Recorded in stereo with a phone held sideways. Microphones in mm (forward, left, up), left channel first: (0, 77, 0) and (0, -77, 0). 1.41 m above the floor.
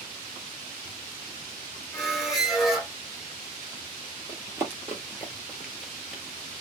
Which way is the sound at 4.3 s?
20° right (ahead or behind).